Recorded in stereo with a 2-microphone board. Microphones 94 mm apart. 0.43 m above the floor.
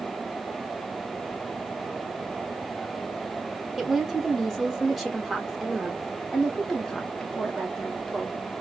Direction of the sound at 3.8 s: 5° right (ahead or behind).